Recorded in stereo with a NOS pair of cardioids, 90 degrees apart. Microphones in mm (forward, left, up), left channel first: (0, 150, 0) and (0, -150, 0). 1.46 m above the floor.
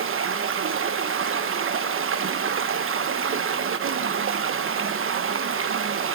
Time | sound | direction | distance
0.0 | running water | 45° right | 1.3 m